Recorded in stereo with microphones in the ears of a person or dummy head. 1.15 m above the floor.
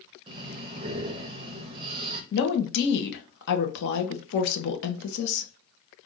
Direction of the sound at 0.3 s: 30° right (ahead or behind).